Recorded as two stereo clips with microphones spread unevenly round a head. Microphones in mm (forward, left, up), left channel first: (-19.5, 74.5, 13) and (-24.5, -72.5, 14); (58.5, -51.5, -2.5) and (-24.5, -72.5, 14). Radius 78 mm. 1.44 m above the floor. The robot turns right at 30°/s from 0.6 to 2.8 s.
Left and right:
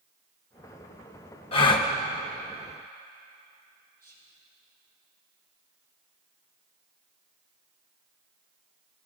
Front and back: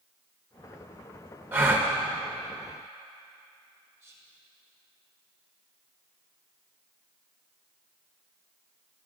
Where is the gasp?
135° left, 1.0 m; by 1.9 s 145° left, 1.0 m.